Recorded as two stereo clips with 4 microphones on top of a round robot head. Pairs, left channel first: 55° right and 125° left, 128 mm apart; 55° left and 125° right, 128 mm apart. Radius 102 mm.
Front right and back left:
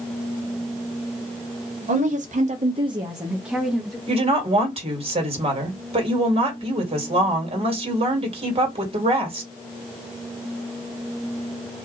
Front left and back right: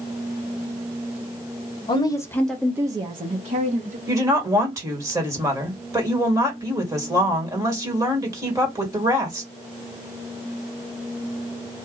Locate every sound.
1.9 s a woman speaking: 105° left, 1.1 m; by 4.0 s 145° right, 1.5 m
4.1 s a woman speaking: 170° left, 1.9 m